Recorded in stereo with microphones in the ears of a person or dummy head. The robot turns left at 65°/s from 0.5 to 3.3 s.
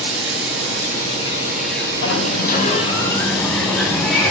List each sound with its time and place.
0.0 s running water: 105° right, 9 m; by 4.3 s 75° left, 9 m
2.0 s a sliding door: 85° left, 5 m; by 4.3 s straight ahead, 5 m